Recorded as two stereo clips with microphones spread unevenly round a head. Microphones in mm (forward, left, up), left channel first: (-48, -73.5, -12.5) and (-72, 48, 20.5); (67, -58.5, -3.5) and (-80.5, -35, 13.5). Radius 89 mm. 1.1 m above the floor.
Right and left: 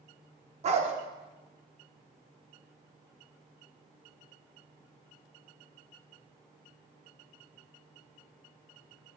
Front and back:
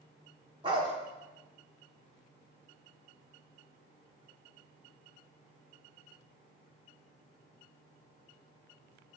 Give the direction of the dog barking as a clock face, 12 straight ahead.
8 o'clock.